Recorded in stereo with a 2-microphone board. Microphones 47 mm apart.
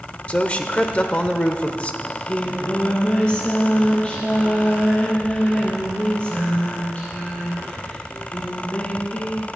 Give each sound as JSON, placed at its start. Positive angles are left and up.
{"t": 0.3, "sound": "a man speaking", "side_deg": 25, "distance_m": 1.0}
{"t": 2.0, "sound": "singing", "side_deg": 25, "distance_m": 3.0}